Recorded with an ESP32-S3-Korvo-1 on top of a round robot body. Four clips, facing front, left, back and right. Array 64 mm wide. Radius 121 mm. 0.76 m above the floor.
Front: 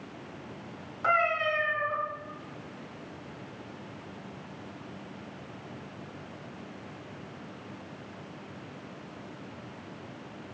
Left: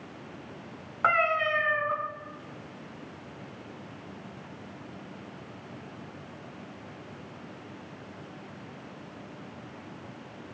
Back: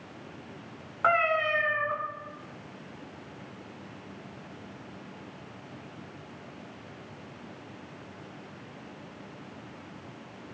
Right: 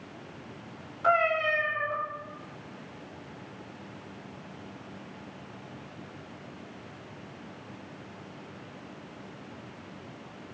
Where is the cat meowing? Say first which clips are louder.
Even, back 1 dB; 120° left, 2.5 m.